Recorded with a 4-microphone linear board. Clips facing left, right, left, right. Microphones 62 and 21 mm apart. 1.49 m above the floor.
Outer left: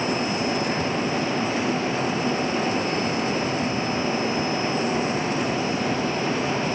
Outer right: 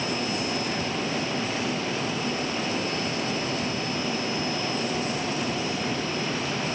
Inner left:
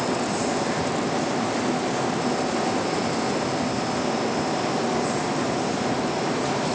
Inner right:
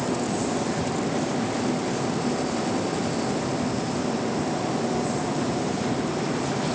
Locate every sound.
Only background noise.